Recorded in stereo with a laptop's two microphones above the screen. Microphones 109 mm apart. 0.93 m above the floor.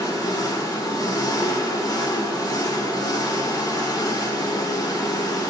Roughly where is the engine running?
Left.